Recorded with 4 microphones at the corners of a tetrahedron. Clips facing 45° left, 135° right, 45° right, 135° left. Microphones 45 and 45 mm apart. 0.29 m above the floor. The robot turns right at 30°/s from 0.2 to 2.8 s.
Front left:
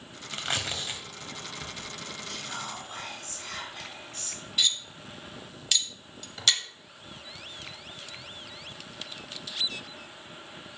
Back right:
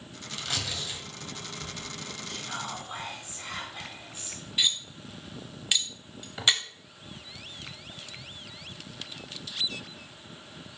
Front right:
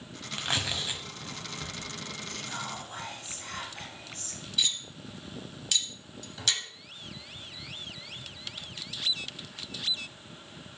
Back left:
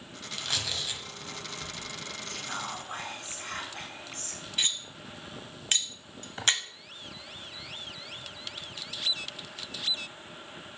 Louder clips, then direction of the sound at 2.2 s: Back right 2 dB, back left 2 dB; 135° left.